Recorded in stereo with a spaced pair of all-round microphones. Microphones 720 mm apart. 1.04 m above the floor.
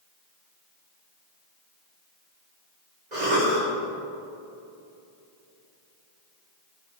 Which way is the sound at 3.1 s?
70° right (ahead or behind).